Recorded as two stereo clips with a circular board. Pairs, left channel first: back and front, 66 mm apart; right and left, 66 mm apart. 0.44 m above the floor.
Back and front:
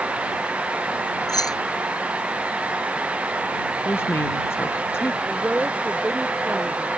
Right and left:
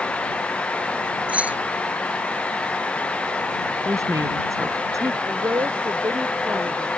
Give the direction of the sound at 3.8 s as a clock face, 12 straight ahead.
8 o'clock.